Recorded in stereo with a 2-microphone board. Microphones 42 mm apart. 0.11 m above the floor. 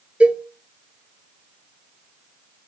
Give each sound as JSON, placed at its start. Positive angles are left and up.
{"t": 0.2, "sound": "a cowbell", "side_deg": -30, "distance_m": 1.0}